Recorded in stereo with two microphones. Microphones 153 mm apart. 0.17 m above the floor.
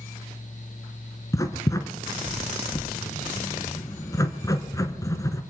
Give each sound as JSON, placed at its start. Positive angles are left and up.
{"t": 1.3, "sound": "writing", "side_deg": 20, "distance_m": 1.5}